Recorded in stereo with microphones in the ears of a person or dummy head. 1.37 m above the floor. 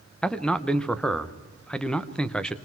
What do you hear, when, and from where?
0.2 s a man speaking: 5° left (ahead or behind), 0.9 m